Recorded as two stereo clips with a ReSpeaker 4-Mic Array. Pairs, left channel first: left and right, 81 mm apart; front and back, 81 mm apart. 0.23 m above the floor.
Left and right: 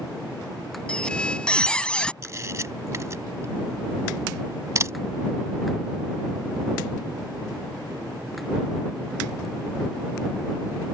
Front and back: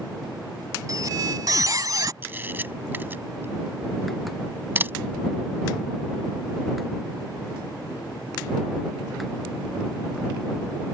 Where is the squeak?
165° left.